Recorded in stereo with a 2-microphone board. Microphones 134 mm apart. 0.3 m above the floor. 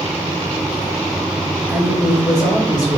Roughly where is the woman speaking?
Left.